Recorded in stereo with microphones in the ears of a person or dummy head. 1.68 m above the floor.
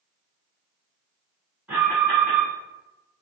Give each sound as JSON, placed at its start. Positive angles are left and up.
{"t": 1.7, "sound": "an alarm", "side_deg": -10, "distance_m": 1.4}